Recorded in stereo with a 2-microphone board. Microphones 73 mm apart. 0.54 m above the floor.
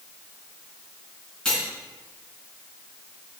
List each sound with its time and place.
1.4 s cutlery clinking: 15° left (ahead or behind), 3.5 m